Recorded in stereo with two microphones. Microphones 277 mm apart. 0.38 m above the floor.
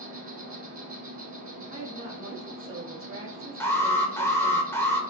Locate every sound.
0.0 s an insect: 75° right (ahead or behind), 1.9 m
1.7 s a woman speaking: 45° right (ahead or behind), 1.9 m
3.6 s an alarm: 10° left (ahead or behind), 0.5 m